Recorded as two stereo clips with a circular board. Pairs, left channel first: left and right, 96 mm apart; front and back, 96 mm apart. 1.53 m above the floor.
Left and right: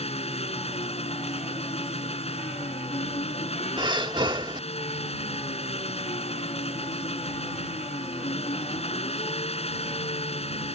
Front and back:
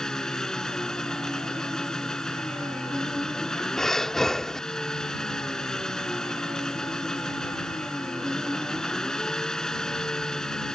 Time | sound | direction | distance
0.0 | an engine running | 85° left | ?
3.8 | breathing | 85° right | ?